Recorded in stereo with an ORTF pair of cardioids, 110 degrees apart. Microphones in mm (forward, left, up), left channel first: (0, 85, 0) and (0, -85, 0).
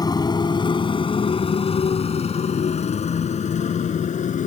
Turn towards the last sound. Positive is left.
turn(degrees=45)